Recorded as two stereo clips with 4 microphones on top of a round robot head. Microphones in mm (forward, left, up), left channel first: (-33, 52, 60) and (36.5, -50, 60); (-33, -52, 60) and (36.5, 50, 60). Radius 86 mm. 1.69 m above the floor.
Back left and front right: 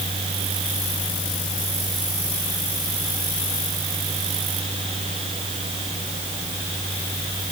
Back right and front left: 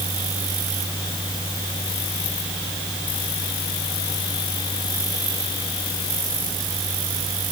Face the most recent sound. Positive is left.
No sound to turn to.